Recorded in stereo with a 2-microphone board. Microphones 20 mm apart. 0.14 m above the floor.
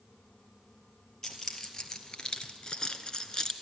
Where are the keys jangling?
35° left (ahead or behind), 2 m; by 3.5 s 40° left (ahead or behind), 1.3 m.